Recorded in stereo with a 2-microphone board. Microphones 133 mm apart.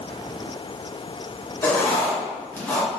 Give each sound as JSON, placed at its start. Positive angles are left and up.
{"t": 1.6, "sound": "writing", "side_deg": 15, "distance_m": 1.8}